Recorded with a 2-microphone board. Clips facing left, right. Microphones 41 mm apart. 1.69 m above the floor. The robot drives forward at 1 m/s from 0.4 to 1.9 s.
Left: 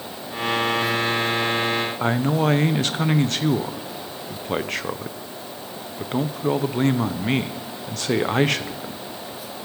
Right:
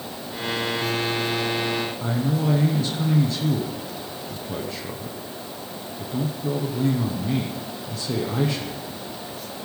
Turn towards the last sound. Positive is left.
turn(degrees=65)  # may be behind; listen again after turning